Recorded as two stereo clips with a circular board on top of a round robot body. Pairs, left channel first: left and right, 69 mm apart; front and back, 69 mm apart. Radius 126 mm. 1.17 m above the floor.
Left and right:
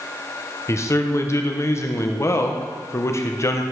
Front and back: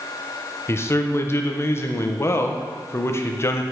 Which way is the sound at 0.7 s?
45° left.